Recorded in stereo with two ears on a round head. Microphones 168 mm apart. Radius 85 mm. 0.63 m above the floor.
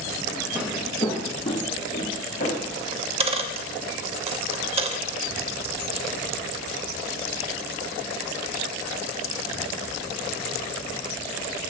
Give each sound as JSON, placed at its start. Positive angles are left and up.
{"t": 0.6, "sound": "footsteps", "side_deg": -10, "distance_m": 1.1}
{"t": 2.9, "sound": "a dropped coin", "side_deg": -30, "distance_m": 0.6}